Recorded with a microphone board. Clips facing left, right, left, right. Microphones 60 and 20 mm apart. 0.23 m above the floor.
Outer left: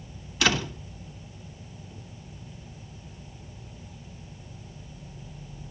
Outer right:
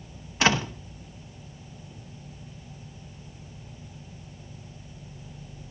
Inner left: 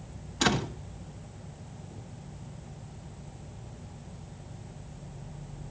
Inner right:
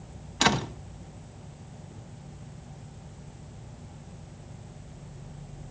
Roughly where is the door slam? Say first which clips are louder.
Outer right 2 dB, inner right 3 dB; right.